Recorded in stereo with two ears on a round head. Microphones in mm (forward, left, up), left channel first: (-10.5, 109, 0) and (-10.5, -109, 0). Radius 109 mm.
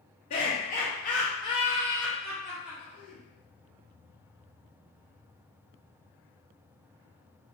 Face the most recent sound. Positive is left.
turn(degrees=-5)  # may be behind; listen again after turning